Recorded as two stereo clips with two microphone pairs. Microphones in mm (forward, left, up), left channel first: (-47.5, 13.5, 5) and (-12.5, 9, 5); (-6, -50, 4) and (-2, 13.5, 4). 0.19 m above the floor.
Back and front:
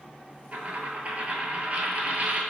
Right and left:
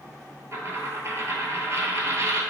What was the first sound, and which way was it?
A dropped coin, 40° left.